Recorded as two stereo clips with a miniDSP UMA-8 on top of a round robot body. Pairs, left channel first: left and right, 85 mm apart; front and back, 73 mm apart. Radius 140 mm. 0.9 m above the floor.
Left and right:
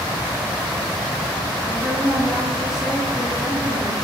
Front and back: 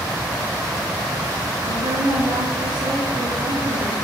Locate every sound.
1.6 s a woman speaking: 175° right, 3 m